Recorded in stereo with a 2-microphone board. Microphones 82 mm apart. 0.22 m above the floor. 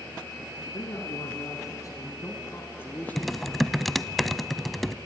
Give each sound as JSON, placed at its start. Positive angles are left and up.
{"t": 0.7, "sound": "a man speaking", "side_deg": 55, "distance_m": 3.0}
{"t": 3.2, "sound": "typing on a keyboard", "side_deg": 0, "distance_m": 0.6}